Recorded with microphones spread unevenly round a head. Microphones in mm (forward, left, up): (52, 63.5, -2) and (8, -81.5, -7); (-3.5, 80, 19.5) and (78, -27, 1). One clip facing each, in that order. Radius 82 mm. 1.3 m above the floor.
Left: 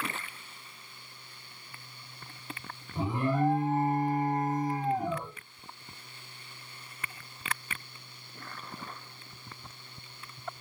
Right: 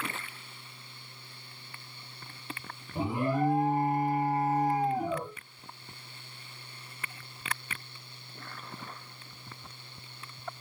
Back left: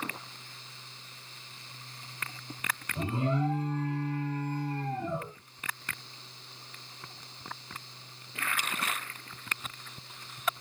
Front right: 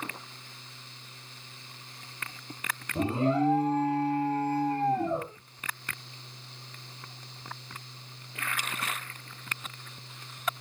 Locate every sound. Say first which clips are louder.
3.0 s an alarm: even, front right 5 dB; 30° right, 1.8 m